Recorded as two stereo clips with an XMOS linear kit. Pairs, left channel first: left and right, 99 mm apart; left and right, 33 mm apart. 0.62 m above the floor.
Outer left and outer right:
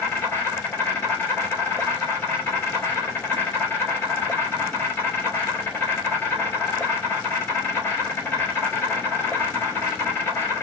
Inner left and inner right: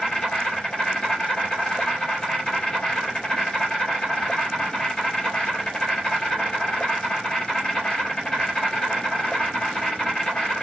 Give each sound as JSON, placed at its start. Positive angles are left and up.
{"t": 0.0, "sound": "an insect", "side_deg": 20, "distance_m": 3.0}